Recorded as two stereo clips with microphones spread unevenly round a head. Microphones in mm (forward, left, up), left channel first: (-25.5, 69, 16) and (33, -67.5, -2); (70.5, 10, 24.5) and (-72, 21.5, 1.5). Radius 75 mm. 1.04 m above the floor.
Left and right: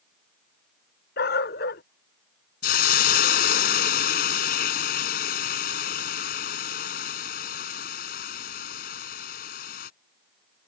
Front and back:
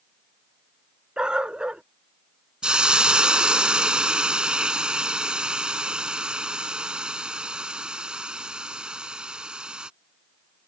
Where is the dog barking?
90° left.